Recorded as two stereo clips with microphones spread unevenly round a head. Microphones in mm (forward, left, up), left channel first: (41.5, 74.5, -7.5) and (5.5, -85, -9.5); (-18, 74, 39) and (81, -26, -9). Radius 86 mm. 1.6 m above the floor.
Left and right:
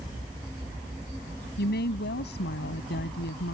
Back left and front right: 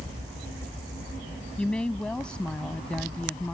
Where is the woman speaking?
55° left.